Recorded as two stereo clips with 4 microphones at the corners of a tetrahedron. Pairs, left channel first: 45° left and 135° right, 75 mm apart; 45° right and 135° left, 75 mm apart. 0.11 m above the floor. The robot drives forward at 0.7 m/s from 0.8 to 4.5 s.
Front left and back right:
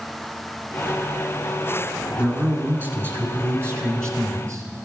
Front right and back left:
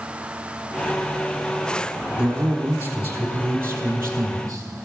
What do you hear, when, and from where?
2.2 s a man speaking: 170° right, 1.4 m; by 4.6 s straight behind, 2.5 m